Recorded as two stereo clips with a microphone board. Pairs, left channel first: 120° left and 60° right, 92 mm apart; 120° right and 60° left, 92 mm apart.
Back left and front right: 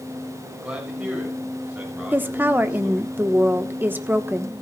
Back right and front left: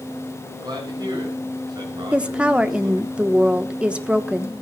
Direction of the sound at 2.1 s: 10° right.